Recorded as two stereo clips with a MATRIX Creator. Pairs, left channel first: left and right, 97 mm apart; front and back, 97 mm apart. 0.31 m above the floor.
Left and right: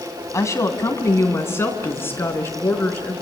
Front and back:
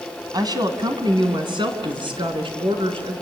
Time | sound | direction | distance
0.3 | a woman speaking | 145° left | 2.5 m